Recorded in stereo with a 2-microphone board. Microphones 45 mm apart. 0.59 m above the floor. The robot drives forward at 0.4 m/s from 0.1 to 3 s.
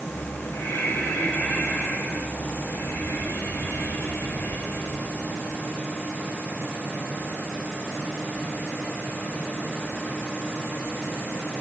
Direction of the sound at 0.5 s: 55° left (ahead or behind).